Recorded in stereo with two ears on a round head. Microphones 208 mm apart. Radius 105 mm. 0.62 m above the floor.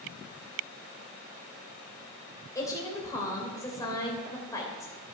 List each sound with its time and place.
2.5 s a woman speaking: 15° left (ahead or behind), 3 m